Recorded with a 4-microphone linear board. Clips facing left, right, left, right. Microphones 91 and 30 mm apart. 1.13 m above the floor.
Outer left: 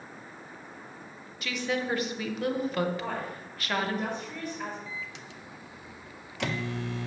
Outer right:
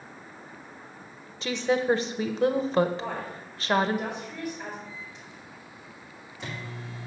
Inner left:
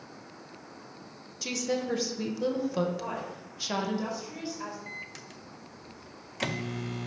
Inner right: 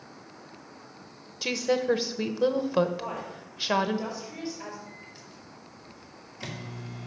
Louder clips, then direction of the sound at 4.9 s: Outer left 2 dB, inner left 4 dB; 80° left.